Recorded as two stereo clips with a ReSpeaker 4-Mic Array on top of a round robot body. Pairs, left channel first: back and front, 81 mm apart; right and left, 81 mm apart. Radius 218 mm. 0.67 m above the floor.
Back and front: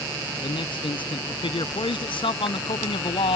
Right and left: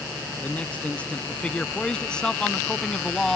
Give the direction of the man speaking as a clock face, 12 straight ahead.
5 o'clock.